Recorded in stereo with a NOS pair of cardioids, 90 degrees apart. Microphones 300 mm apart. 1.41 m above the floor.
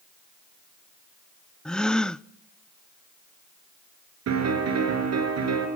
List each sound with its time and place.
1.6 s a gasp: straight ahead, 0.5 m
4.3 s a piano: 60° right, 7 m